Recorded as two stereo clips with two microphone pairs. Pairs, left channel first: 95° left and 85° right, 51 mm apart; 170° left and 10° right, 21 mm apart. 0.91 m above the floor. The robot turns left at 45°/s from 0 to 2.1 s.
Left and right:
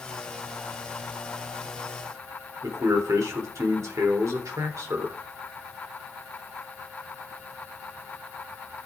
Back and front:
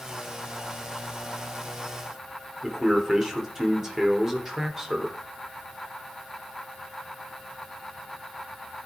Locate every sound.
2.6 s a man speaking: 85° right, 3 m